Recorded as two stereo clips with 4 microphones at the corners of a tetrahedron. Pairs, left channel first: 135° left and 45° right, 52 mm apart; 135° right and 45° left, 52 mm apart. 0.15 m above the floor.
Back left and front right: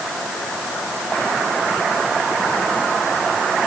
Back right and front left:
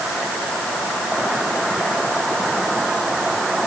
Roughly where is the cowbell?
I don't hear a cowbell.